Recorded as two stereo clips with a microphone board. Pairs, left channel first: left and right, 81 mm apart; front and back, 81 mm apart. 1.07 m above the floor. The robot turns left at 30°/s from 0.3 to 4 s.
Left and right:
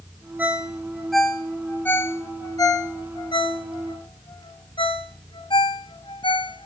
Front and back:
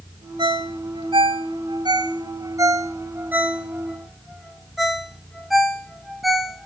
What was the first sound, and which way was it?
A ringtone, 160° right.